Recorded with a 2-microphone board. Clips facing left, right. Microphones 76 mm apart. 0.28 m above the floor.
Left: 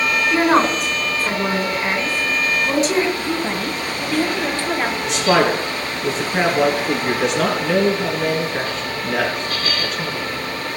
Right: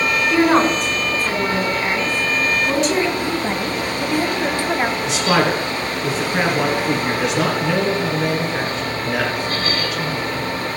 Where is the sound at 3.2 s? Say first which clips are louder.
Right 1 dB; 15° right (ahead or behind), 1.4 m.